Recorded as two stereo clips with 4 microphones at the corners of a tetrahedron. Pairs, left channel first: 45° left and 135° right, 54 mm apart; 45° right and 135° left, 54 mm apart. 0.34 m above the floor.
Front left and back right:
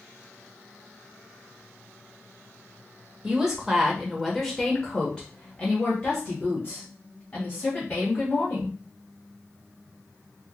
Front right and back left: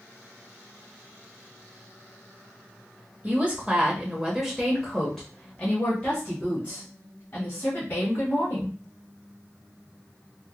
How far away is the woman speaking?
About 1.2 m.